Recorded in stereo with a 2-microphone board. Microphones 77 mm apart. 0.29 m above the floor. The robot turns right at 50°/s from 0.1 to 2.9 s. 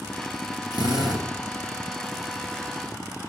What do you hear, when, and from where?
0.7 s a drill: 75° right (ahead or behind), 2.5 m